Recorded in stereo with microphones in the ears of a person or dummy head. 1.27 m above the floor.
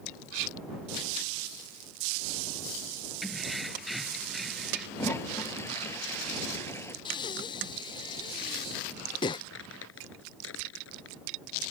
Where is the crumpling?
75° left (ahead or behind).